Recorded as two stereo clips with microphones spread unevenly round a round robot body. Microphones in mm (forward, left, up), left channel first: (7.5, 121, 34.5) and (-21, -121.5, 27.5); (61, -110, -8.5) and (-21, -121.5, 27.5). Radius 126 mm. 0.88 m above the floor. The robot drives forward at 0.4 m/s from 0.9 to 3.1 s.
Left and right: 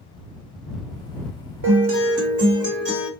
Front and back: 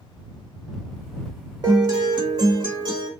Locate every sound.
1.6 s a guitar: 125° right, 1.8 m; by 3.1 s 140° right, 2 m